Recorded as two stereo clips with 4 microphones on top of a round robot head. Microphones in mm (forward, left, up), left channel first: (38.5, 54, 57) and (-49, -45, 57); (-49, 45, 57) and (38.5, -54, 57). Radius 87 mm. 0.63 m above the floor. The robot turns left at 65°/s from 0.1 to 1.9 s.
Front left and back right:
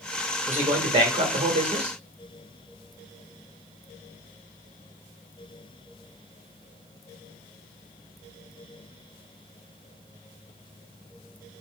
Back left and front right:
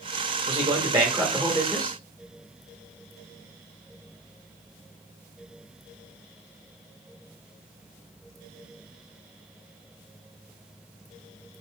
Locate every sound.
0.5 s a man speaking: 60° right, 1.6 m; by 2.0 s 155° right, 1.6 m